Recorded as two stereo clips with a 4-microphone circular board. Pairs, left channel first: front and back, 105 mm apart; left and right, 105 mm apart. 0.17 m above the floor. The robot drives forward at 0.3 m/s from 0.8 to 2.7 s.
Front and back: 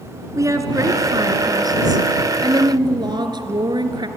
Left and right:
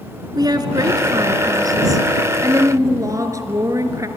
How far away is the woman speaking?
About 1.8 m.